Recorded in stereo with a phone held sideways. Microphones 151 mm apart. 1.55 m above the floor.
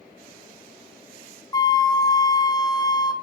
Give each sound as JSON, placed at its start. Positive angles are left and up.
{"t": 1.5, "sound": "a flute", "side_deg": 25, "distance_m": 0.6}